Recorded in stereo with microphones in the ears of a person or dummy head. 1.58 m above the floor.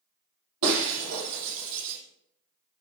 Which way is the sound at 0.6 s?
75° right (ahead or behind).